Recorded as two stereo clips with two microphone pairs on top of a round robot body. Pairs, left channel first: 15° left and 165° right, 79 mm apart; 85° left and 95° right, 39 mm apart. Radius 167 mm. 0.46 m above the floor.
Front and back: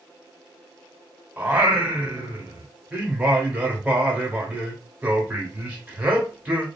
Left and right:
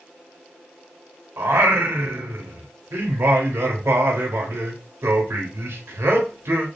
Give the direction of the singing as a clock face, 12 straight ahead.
3 o'clock.